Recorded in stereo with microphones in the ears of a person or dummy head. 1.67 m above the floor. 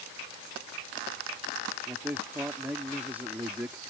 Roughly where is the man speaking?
Centre.